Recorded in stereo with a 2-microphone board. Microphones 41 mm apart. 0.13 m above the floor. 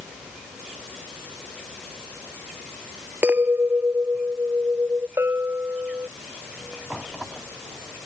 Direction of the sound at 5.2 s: 85° right.